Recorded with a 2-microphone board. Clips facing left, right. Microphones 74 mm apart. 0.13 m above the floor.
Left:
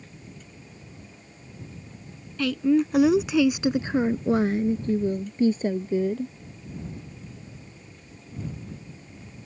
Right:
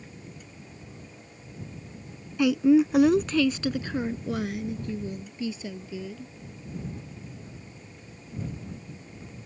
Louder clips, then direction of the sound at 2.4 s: Right 2 dB; 20° right (ahead or behind).